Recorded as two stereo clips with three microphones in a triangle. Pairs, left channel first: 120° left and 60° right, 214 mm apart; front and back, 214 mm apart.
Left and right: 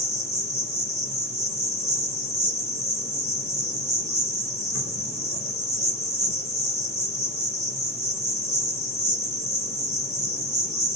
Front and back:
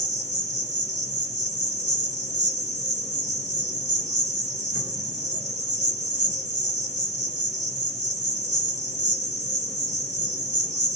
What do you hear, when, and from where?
0.0 s an insect: 145° right, 2.0 m